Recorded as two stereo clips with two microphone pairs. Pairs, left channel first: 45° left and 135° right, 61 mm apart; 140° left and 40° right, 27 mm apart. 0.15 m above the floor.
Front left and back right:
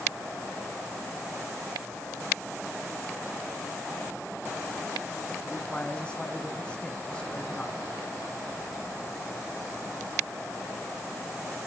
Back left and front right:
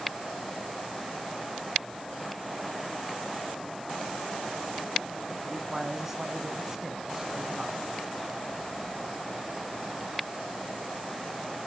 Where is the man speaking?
10° left, 1.4 m.